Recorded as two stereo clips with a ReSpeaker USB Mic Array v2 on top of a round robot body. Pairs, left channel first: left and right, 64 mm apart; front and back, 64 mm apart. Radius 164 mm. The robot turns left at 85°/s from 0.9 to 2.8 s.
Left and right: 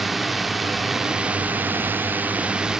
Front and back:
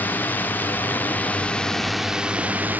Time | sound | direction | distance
0.0 | a drone | 5° right | ?